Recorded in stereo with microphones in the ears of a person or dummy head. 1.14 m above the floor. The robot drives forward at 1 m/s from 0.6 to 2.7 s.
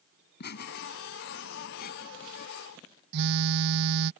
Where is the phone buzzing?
55° right (ahead or behind).